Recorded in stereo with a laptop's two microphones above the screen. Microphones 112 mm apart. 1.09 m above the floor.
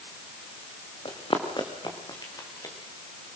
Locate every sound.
1.1 s running footsteps: 50° left (ahead or behind), 3.5 m; by 2.8 s 30° left (ahead or behind), 5 m